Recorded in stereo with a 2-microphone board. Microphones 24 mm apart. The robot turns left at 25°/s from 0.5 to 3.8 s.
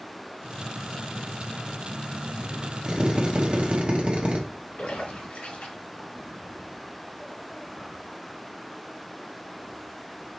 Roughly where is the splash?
Left.